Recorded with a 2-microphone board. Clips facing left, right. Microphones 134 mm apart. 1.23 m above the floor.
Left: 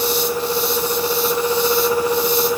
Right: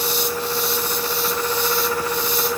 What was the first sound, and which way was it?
Only background noise.